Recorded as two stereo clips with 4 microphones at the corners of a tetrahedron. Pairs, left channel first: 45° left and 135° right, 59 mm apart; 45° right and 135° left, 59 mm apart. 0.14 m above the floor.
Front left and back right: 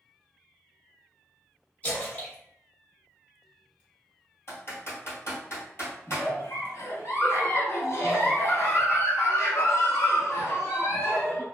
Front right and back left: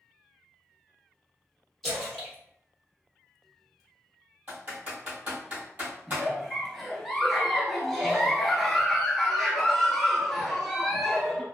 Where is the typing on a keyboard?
80° left, 1.5 m.